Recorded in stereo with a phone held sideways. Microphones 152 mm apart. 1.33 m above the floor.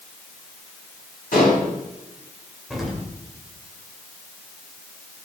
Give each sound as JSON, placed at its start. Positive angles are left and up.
{"t": 1.3, "sound": "dishes clattering", "side_deg": 70, "distance_m": 6.0}
{"t": 2.7, "sound": "an explosion", "side_deg": 0, "distance_m": 2.5}